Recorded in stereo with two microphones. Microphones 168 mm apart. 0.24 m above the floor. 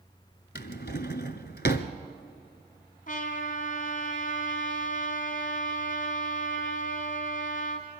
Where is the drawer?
75° left (ahead or behind), 0.9 m.